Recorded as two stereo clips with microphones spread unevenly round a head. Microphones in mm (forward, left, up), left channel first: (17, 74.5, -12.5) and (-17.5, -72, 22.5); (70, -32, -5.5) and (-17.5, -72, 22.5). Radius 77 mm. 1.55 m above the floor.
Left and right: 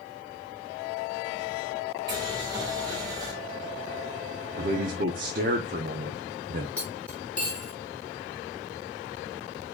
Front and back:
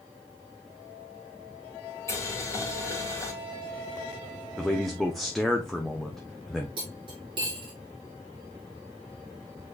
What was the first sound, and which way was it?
Boiling, 35° right.